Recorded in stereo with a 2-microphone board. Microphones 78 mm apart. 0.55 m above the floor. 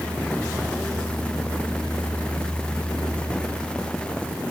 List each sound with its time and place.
Only background noise.